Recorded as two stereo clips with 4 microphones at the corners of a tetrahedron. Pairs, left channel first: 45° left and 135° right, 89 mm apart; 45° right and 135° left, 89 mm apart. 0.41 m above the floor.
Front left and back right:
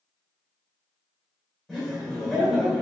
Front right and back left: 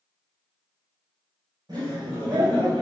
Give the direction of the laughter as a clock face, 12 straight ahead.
7 o'clock.